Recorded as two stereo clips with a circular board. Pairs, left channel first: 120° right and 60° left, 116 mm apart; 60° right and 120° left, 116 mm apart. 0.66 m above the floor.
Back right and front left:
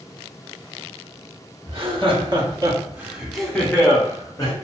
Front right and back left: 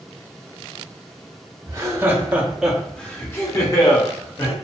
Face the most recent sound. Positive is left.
turn(degrees=-80)